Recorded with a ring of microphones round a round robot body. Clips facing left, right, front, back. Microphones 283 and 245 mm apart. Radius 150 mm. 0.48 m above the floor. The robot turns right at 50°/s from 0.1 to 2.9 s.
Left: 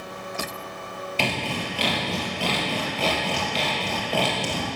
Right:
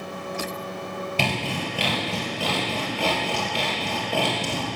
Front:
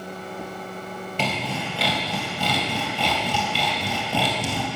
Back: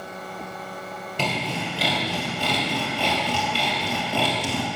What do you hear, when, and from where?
1.2 s sawing: 100° right, 2.5 m; by 4.7 s 15° right, 2.5 m